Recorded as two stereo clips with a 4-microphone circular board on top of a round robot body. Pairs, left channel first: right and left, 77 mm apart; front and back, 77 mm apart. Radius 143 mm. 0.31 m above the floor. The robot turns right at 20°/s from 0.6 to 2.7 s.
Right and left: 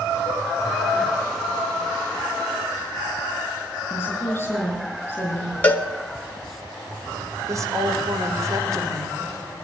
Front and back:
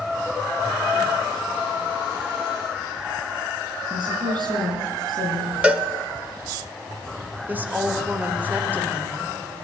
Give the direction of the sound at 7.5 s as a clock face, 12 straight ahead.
8 o'clock.